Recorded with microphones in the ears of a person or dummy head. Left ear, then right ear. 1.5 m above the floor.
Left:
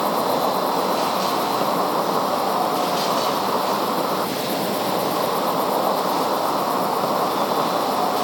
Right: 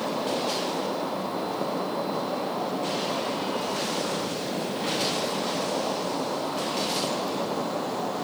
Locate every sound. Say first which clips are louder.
0.0 s an insect: left 8 dB; 50° left (ahead or behind)